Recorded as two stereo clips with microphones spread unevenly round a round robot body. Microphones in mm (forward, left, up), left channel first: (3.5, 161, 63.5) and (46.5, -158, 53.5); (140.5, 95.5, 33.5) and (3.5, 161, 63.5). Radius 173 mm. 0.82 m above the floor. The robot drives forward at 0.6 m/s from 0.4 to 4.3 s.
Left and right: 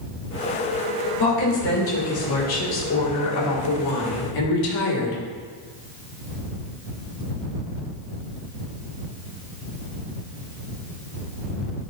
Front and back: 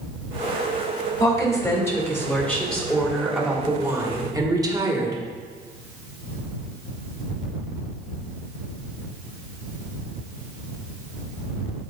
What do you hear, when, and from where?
1.2 s a woman speaking: 40° left, 2.5 m; by 5.2 s 85° left, 1.8 m